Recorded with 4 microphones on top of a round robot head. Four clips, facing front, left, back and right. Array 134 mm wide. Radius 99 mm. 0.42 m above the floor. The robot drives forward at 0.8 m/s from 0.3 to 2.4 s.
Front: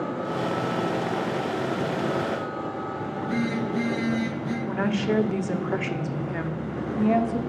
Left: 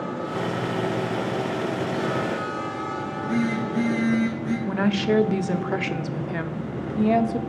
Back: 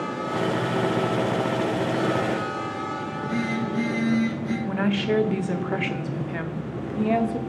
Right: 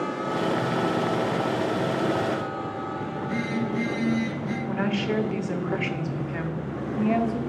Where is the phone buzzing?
65° left, 2 m.